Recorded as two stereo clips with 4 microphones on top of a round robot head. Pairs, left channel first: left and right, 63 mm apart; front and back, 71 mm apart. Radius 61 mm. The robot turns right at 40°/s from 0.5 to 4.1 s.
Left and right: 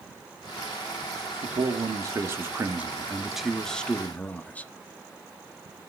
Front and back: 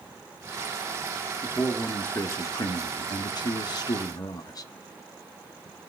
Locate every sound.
1.4 s a man speaking: 80° right, 1.2 m; by 4.7 s 25° left, 1.2 m